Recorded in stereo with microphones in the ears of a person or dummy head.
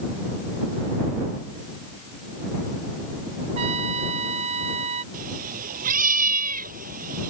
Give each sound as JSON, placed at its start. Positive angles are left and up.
{"t": 3.5, "sound": "a trumpet", "side_deg": -40}
{"t": 5.1, "sound": "a cat meowing", "side_deg": -50}